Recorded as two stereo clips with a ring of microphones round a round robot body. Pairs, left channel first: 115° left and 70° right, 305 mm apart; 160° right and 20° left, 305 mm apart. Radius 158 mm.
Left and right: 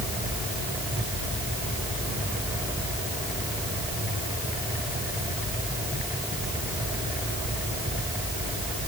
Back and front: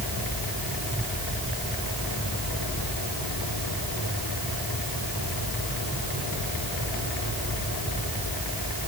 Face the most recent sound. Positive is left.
No sound to turn to.